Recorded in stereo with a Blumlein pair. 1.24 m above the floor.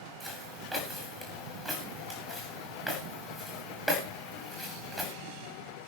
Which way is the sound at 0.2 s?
5° right.